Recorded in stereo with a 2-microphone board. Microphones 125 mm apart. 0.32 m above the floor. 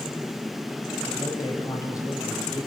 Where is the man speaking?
30° left (ahead or behind), 1.7 m.